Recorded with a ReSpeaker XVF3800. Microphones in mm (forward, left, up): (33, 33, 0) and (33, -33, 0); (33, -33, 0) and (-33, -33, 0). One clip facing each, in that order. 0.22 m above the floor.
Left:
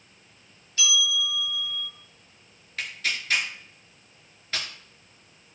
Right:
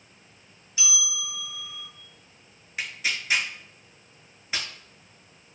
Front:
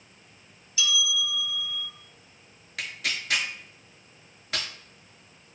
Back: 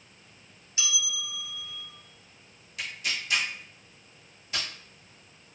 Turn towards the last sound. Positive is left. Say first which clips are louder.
# even, front 2 dB
turn(degrees=-15)